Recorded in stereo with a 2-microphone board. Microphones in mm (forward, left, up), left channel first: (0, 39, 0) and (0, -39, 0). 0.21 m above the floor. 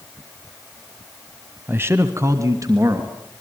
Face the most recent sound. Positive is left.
turn(degrees=-45)  # may be behind; listen again after turning